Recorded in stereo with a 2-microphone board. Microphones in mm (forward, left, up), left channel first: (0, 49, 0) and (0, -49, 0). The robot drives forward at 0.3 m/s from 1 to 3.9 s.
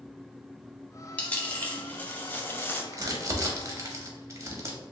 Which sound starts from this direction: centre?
A dropped coin, at 1.2 s.